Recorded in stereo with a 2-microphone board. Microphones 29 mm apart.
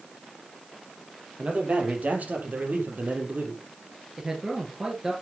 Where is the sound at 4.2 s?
25° right (ahead or behind), 3 m.